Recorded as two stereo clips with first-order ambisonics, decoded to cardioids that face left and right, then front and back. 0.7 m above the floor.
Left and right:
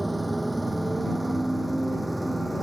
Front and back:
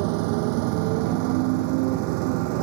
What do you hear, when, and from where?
0.0 s a motorcycle: 175° right